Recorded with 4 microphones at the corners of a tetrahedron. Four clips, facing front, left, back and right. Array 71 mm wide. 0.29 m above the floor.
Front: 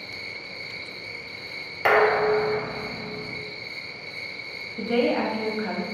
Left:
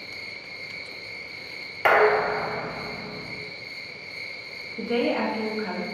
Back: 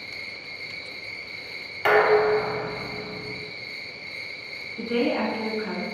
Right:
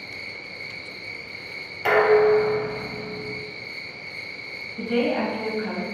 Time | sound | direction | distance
0.0 | an insect | 90° right | 1.1 m
1.9 | dishes clattering | 70° left | 0.7 m
4.8 | a woman speaking | 15° left | 1.1 m